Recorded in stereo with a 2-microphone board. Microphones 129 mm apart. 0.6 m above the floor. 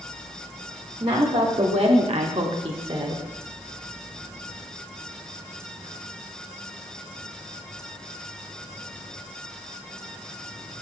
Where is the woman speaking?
40° right (ahead or behind), 2 m; by 3.2 s 35° right (ahead or behind), 2.5 m.